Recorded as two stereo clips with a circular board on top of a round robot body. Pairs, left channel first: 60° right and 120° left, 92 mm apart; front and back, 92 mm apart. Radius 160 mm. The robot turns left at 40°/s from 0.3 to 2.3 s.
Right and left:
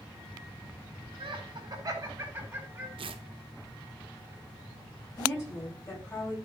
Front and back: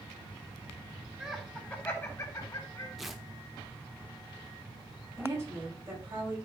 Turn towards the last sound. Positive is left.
turn(degrees=-120)